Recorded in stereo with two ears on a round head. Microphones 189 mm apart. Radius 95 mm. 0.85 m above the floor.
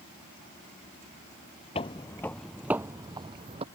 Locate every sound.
1.8 s footsteps: 30° left (ahead or behind); by 3.6 s 30° right (ahead or behind)